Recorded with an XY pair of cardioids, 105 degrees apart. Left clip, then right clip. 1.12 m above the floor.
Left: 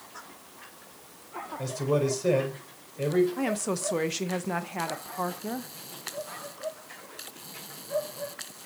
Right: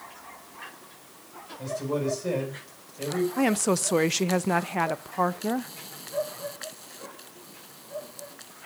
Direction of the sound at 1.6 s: 40° left.